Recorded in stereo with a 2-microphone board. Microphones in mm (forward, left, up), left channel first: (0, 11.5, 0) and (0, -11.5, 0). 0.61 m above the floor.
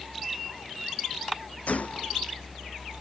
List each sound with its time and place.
1.7 s a gunshot: 75° left (ahead or behind)